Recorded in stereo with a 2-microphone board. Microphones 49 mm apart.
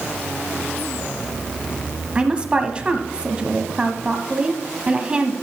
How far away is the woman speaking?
About 1.0 m.